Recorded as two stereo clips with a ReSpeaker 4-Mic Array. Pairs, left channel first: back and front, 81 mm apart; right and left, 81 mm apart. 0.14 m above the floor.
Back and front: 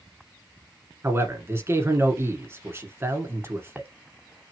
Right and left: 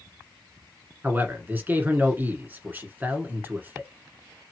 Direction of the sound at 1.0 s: 35° left.